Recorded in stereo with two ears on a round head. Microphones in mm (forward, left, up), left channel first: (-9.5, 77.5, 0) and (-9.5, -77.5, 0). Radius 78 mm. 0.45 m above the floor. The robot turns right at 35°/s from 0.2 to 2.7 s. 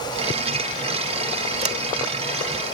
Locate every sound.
1.6 s a sliding door: 40° right (ahead or behind)